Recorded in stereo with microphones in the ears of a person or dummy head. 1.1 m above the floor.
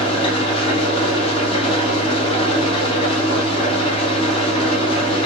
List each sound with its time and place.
0.0 s an engine running: 30° left (ahead or behind), 1.7 m